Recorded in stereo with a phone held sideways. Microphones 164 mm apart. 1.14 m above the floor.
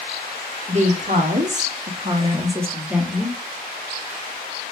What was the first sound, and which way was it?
A woman speaking, 45° right (ahead or behind).